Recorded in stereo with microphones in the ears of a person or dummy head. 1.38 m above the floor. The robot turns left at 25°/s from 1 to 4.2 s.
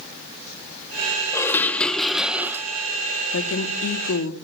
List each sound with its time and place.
1.3 s dishes clattering: 20° left, 0.6 m; by 2.7 s 15° right, 0.6 m
3.3 s a woman speaking: 60° left (ahead or behind), 2.5 m; by 4.3 s 85° left, 2.5 m